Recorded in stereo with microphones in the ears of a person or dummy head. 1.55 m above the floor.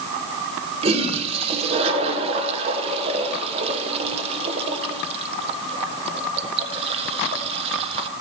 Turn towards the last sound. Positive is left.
turn(degrees=-35)  # may be behind; listen again after turning